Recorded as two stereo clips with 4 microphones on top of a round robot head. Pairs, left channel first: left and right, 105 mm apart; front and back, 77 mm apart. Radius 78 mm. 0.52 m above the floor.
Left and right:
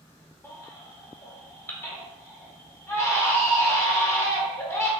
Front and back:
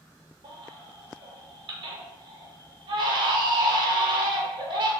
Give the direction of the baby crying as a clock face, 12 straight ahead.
7 o'clock.